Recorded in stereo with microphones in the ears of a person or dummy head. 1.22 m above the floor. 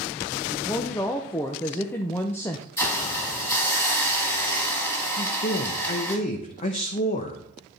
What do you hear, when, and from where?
0.5 s a woman speaking: 10° left (ahead or behind), 0.5 m
2.8 s a hiss: 15° left (ahead or behind), 1.6 m
5.2 s a man speaking: 35° left (ahead or behind), 0.8 m